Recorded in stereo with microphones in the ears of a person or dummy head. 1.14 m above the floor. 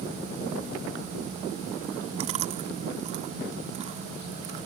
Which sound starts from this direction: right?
Chewing, at 2.2 s.